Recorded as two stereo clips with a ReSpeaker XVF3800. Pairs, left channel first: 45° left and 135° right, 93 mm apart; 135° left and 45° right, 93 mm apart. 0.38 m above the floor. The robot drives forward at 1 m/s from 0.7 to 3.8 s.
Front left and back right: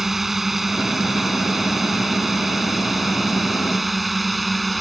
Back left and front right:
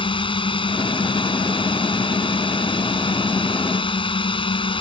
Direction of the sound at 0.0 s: 135° left.